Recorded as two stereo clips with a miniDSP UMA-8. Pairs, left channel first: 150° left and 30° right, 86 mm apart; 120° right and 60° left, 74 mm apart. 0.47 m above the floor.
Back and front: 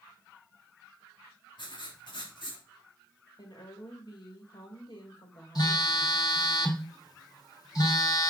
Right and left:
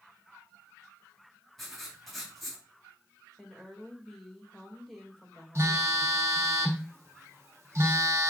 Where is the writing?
155° left, 3.5 m.